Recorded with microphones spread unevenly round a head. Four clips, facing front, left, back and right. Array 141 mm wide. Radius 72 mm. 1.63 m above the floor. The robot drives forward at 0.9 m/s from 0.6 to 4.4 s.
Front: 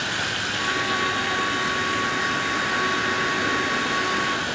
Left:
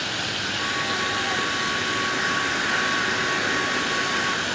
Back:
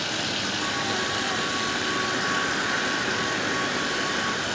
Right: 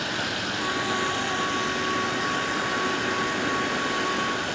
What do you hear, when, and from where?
0.0 s running water: 140° right, 1.8 m; by 4.6 s 170° right, 5 m